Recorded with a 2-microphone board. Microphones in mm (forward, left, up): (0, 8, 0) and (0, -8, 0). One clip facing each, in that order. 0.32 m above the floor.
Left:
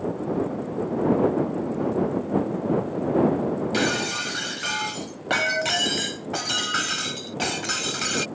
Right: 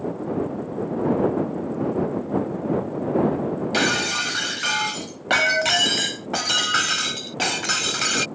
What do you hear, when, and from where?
3.7 s breaking glass: 15° right (ahead or behind)